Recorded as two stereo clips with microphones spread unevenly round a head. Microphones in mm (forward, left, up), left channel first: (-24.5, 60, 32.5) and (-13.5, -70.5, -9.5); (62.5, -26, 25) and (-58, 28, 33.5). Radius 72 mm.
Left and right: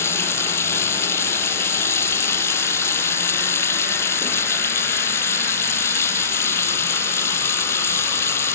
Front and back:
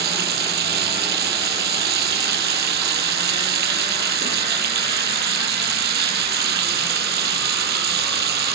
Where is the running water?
165° left.